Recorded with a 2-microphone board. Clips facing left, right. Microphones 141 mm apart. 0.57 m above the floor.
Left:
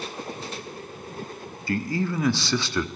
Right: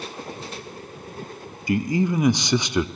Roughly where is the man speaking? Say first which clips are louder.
Right 5 dB; centre.